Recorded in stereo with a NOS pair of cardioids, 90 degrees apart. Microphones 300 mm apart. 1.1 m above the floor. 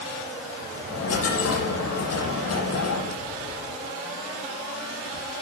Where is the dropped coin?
50° left, 8.5 m.